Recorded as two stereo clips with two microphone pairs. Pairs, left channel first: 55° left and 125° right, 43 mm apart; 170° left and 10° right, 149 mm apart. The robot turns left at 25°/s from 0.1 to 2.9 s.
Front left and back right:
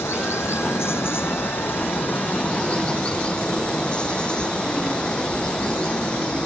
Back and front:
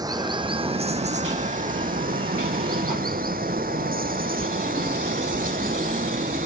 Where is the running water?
55° left; by 6.5 s 15° right.